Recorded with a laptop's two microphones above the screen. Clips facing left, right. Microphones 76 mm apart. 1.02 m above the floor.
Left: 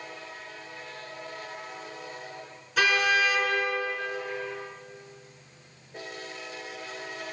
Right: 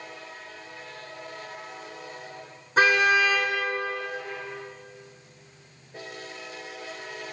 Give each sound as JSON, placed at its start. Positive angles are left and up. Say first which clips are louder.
{"t": 2.8, "sound": "a car horn", "louder": "right 4 dB", "side_deg": -35, "distance_m": 8.0}